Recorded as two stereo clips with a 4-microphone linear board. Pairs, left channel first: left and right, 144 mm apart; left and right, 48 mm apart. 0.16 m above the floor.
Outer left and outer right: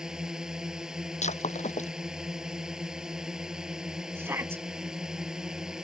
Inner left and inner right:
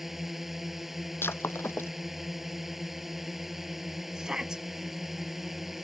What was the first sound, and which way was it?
A drone, 5° right (ahead or behind).